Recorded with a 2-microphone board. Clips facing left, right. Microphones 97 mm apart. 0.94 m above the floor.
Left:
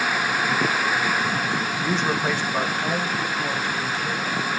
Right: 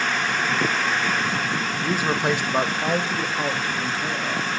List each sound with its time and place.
1.8 s a man speaking: centre (ahead or behind), 0.9 m; by 4.5 s 45° right (ahead or behind), 2 m